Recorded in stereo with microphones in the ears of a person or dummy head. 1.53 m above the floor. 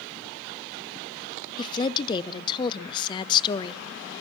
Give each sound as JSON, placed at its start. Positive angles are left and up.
{"t": 1.6, "sound": "a woman speaking", "side_deg": 25, "distance_m": 0.6}